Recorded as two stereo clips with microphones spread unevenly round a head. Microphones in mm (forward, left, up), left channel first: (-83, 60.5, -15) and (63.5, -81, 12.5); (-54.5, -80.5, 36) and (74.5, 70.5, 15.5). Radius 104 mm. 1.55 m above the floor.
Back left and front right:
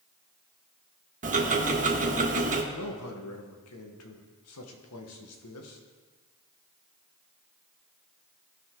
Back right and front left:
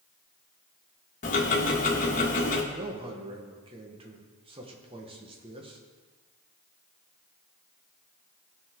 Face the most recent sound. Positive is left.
turn(degrees=115)